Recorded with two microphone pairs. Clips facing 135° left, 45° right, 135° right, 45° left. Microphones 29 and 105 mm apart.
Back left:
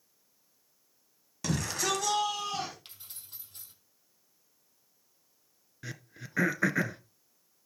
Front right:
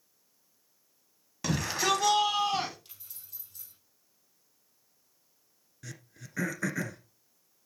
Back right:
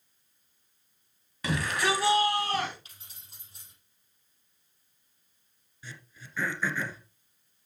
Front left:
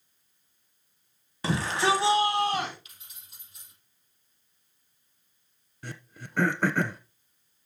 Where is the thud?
I don't hear a thud.